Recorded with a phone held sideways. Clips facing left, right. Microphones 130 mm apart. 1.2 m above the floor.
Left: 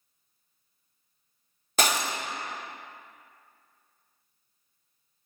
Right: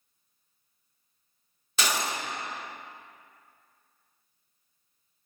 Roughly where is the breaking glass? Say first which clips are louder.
Left 3 dB; left.